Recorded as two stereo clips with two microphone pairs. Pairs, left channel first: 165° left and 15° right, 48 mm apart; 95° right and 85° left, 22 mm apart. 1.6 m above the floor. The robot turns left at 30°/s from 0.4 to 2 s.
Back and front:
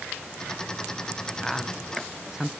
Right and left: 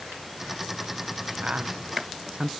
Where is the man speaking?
85° left, 0.9 m; by 2.5 s 70° left, 0.9 m.